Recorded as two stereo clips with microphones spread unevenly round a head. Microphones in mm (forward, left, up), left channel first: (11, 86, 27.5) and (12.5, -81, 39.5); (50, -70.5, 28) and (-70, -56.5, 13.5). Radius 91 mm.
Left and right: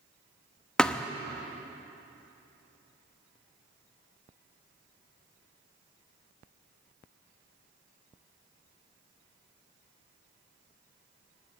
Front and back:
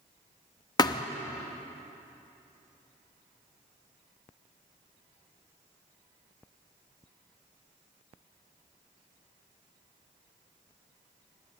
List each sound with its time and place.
0.8 s a thud: straight ahead, 0.8 m